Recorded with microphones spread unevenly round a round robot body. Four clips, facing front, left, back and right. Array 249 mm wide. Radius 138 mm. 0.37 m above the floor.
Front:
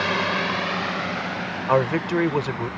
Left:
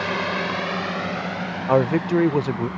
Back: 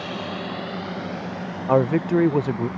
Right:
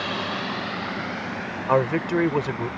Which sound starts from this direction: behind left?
A man speaking, at 1.7 s.